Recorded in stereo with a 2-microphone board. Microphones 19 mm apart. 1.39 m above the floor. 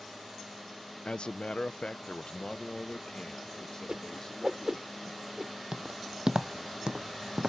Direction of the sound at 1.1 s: 65° left (ahead or behind).